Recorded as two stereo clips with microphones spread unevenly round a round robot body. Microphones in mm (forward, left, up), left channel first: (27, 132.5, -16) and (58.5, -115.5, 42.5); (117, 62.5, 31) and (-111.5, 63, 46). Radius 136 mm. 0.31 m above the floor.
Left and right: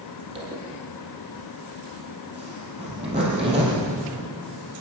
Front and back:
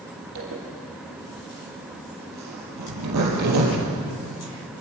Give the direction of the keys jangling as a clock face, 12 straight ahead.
No keys jangling in this recording.